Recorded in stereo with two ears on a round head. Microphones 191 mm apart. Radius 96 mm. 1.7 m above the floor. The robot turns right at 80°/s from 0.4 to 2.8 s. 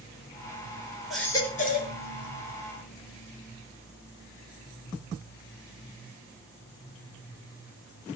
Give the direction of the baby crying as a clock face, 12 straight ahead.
12 o'clock.